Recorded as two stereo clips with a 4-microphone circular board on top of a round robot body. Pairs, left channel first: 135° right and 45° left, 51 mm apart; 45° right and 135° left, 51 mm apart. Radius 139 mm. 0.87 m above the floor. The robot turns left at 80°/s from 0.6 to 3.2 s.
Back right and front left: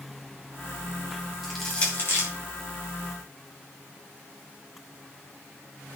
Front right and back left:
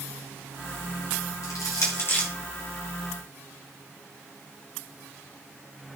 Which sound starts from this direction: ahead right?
Crushing, at 1.4 s.